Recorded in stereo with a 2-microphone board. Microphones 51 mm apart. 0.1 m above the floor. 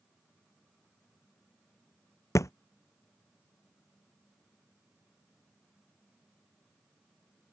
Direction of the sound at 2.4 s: 85° left.